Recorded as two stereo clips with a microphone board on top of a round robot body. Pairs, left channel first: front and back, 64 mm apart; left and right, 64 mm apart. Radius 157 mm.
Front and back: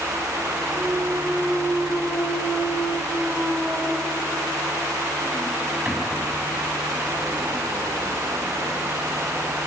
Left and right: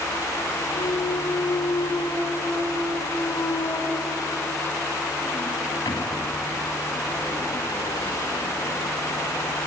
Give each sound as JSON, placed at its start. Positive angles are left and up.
{"t": 0.7, "sound": "a clunk", "azimuth_deg": 105, "distance_m": 3.5}